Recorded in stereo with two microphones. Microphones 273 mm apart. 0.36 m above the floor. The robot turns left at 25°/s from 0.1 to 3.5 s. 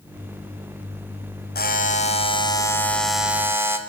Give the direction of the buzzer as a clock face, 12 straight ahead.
11 o'clock.